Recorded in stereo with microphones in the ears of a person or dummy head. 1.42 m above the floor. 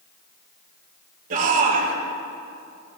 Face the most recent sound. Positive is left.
turn(degrees=-50)  # may be behind; listen again after turning